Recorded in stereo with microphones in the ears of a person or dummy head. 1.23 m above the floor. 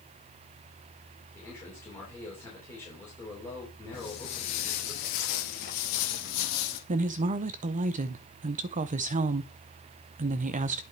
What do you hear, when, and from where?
1.4 s a man speaking: 15° left (ahead or behind), 3 m
3.9 s footsteps: 30° left (ahead or behind), 1.3 m; by 6.8 s 60° left (ahead or behind), 2.5 m
6.9 s a woman speaking: 35° right (ahead or behind), 0.6 m